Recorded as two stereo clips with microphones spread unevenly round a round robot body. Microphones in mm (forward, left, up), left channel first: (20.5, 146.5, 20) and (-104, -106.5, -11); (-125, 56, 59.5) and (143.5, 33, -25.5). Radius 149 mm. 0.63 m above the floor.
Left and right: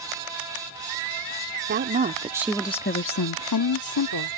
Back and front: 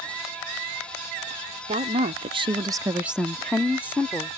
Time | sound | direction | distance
1.7 | a woman speaking | 65° right | ?